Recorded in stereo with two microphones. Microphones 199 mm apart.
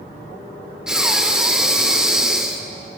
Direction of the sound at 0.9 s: 5° right (ahead or behind).